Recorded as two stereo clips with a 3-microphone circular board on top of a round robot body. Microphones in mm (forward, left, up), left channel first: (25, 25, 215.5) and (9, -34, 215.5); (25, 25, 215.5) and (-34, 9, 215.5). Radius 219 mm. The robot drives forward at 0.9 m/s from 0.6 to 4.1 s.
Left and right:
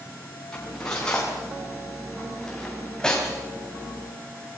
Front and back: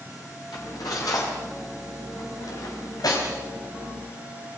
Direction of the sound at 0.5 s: Straight ahead.